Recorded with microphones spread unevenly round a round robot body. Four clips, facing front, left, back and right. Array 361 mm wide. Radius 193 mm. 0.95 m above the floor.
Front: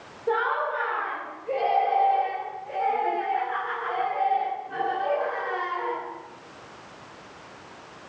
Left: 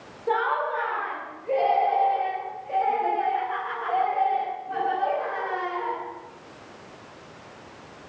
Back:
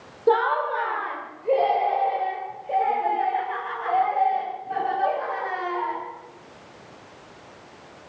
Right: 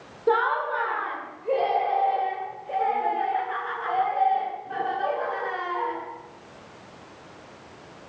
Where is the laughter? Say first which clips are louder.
Right 2 dB, back 5 dB; 145° right, 3 m; by 6.0 s 135° right, 6.5 m.